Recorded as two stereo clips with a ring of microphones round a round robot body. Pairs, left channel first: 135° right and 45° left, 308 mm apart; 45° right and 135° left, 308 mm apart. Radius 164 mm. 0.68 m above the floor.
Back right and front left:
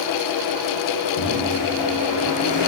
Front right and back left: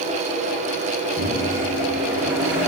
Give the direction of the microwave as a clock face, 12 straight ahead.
5 o'clock.